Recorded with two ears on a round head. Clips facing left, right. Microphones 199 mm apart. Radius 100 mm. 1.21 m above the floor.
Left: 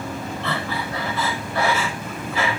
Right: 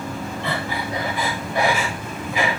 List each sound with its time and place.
0.4 s breathing: 15° right (ahead or behind), 6.5 m